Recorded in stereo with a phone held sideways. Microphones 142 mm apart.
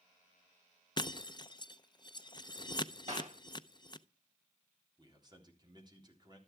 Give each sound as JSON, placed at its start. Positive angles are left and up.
{"t": 1.0, "sound": "breaking glass", "side_deg": 30, "distance_m": 0.5}
{"t": 3.1, "sound": "a clap", "side_deg": -55, "distance_m": 6.5}
{"t": 5.0, "sound": "a man speaking", "side_deg": -30, "distance_m": 3.5}